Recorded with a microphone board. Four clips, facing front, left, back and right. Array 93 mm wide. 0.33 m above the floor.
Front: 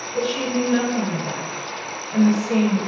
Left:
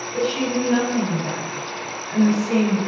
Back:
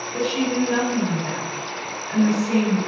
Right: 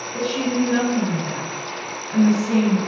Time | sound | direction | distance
0.1 | a woman speaking | 135° left | 1.4 m